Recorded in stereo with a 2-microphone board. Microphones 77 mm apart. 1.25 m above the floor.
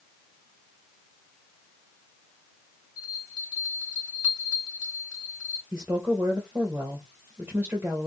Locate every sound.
3.0 s a bell: 15° right (ahead or behind), 1.1 m
5.7 s a woman speaking: 30° right (ahead or behind), 0.9 m